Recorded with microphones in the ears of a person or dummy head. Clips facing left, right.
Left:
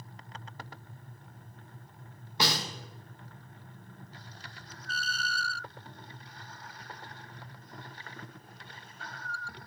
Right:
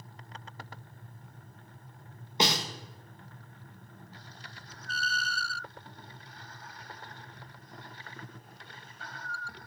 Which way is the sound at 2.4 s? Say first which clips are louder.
Right 2 dB; 20° right (ahead or behind).